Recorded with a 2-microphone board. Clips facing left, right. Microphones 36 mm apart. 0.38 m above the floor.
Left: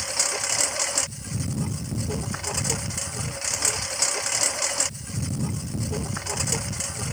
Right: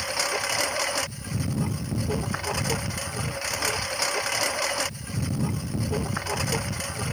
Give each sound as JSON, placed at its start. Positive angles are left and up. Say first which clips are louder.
{"t": 0.0, "sound": "a lawn mower", "louder": "right 2 dB", "side_deg": -10}